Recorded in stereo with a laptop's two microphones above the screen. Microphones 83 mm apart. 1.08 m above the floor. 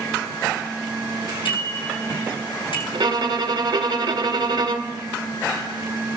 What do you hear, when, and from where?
1.4 s a bicycle bell: 85° left, 9.5 m
2.9 s a violin: 60° right (ahead or behind), 1.4 m